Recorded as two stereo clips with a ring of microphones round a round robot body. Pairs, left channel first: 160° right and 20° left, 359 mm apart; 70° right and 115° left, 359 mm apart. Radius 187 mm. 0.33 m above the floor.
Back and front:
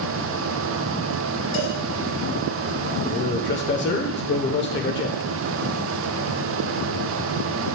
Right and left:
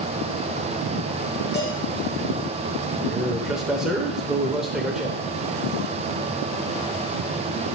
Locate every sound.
1.5 s a cowbell: 160° right, 2 m
3.0 s a man speaking: 160° right, 0.9 m